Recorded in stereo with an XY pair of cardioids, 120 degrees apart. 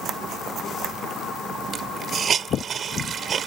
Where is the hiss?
45° right.